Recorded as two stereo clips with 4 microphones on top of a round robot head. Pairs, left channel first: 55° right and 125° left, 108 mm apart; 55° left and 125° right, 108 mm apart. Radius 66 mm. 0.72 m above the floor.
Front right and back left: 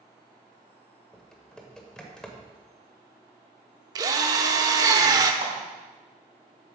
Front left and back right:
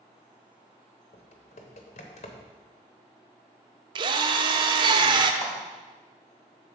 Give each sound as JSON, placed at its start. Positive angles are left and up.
{"t": 1.1, "sound": "typing on a keyboard", "azimuth_deg": 30, "distance_m": 1.0}
{"t": 4.0, "sound": "a drill", "azimuth_deg": -175, "distance_m": 0.6}
{"t": 5.4, "sound": "a clap", "azimuth_deg": 85, "distance_m": 3.5}